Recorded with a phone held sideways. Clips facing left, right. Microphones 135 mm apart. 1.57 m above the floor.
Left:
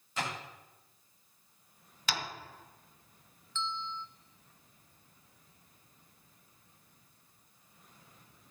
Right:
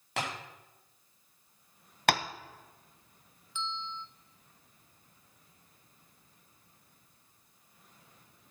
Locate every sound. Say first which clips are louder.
0.2 s tapping: right 1 dB; 75° right (ahead or behind), 4.5 m
2.1 s tapping: right 10 dB; 60° right (ahead or behind), 0.7 m
3.5 s a bell: left 1 dB; 15° right (ahead or behind), 1.0 m